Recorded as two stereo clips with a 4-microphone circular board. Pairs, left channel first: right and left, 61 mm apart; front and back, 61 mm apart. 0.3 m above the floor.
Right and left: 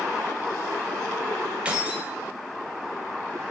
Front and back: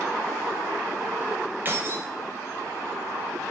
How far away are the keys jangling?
About 0.6 m.